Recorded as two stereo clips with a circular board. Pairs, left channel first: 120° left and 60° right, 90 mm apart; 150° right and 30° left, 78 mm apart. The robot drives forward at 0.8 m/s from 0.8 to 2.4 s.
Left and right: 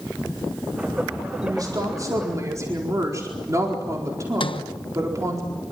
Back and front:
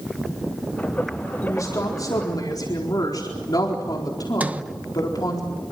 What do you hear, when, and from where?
1.4 s a woman speaking: 105° right, 4 m; by 5.4 s 115° right, 4 m
4.4 s a sliding door: 100° left, 1.0 m